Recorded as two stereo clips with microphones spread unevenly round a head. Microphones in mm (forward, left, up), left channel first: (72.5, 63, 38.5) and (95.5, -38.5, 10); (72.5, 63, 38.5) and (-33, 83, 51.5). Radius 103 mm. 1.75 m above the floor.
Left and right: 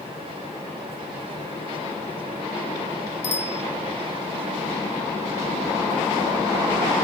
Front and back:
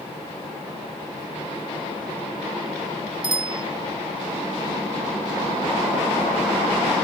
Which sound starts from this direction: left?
A bicycle bell, at 3.2 s.